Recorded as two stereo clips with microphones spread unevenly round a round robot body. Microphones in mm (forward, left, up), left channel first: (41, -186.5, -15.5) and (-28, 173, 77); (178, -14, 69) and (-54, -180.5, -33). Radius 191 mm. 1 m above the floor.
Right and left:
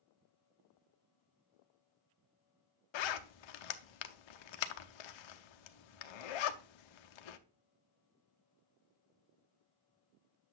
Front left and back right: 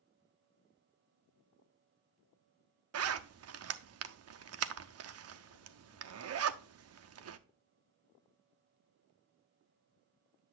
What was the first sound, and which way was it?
A zipper, 95° right.